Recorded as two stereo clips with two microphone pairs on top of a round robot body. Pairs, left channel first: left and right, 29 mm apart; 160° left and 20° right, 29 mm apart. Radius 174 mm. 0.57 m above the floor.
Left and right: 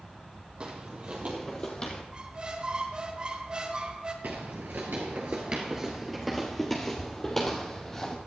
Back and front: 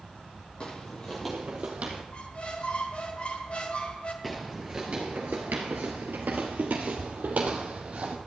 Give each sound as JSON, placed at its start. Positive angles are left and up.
{"t": 0.6, "sound": "footsteps", "azimuth_deg": -145, "distance_m": 1.1}
{"t": 2.1, "sound": "a squeak", "azimuth_deg": -155, "distance_m": 1.4}
{"t": 4.2, "sound": "footsteps", "azimuth_deg": -115, "distance_m": 0.8}